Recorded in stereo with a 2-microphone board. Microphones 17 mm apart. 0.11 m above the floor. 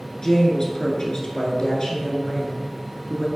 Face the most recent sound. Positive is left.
turn(degrees=35)  # may be behind; listen again after turning